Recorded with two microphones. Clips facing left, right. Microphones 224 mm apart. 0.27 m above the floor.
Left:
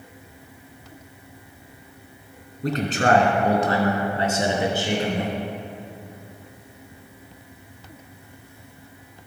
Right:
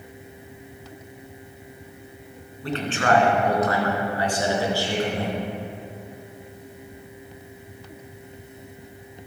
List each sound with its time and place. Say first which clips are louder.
2.6 s a man speaking: left 2 dB; 40° left (ahead or behind), 2.5 m; by 5.4 s 15° left (ahead or behind), 4 m